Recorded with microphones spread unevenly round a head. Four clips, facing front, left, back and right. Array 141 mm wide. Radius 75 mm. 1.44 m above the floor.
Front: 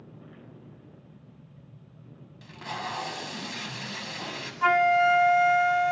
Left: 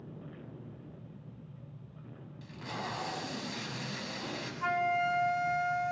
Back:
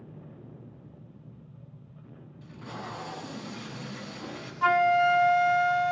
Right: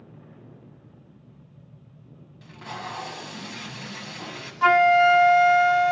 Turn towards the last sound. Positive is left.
turn(degrees=-60)